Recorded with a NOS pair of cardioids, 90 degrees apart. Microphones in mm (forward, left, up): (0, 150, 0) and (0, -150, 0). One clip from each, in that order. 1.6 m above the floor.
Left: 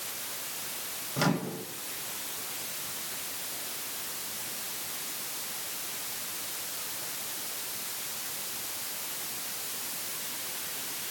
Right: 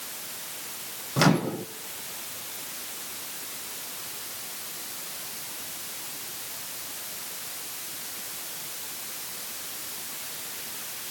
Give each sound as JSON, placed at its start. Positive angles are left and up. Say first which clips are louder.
{"t": 1.2, "sound": "a microwave", "louder": "right 7 dB", "azimuth_deg": -45, "distance_m": 1.4}